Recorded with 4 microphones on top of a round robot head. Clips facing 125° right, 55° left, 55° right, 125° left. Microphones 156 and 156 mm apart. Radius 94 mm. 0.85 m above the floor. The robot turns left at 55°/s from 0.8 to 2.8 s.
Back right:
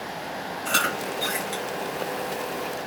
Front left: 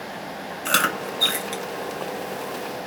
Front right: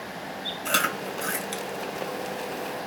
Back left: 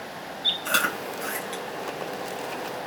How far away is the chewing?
About 1.1 m.